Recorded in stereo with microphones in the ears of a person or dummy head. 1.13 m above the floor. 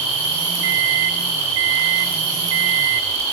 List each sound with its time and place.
0.6 s a microwave: 75° right (ahead or behind), 0.7 m